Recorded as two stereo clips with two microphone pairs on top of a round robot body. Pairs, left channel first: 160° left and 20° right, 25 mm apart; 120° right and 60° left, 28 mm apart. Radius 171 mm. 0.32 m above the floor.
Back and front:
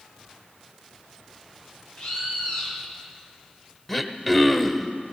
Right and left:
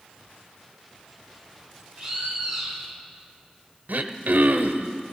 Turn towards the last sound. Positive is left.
turn(degrees=85)